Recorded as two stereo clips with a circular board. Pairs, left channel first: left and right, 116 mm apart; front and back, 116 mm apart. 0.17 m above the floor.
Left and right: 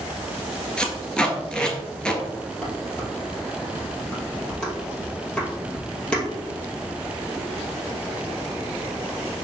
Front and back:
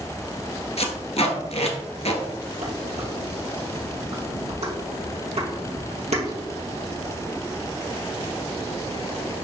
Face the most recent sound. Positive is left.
turn(degrees=170)